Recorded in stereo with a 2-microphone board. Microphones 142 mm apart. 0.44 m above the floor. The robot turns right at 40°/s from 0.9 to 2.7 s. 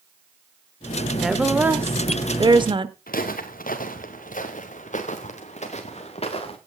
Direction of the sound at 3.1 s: 80° left.